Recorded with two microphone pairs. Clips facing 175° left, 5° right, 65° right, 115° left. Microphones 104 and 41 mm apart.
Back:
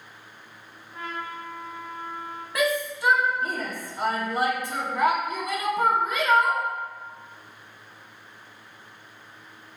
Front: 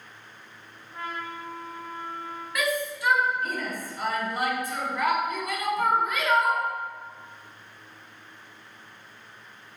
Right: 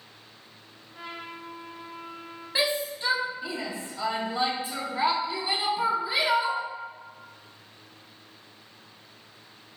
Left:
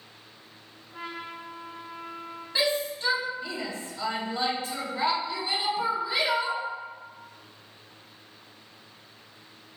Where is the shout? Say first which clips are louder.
Back 3 dB, even; 135° right, 1.6 m.